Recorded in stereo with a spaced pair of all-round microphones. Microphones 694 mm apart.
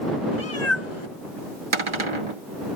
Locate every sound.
0.3 s a cat meowing: 45° left (ahead or behind)
1.7 s a cupboard door: 45° right (ahead or behind)